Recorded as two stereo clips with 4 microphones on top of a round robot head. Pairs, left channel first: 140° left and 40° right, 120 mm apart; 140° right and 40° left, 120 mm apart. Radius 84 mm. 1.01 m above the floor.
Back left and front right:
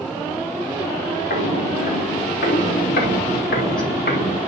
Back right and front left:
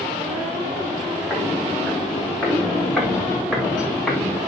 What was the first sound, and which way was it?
Footsteps, 120° left.